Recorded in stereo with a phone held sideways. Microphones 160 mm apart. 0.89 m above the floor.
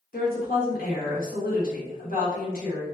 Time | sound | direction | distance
0.1 | a woman speaking | 65° left (ahead or behind) | 1.4 m